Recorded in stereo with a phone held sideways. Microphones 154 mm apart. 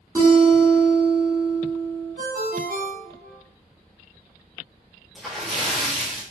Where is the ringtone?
75° right (ahead or behind), 0.8 m.